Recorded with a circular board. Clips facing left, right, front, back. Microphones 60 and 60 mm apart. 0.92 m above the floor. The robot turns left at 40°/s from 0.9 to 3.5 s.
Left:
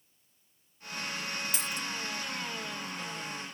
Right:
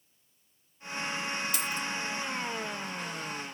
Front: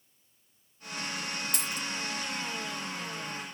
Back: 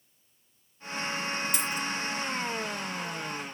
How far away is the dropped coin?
About 0.8 m.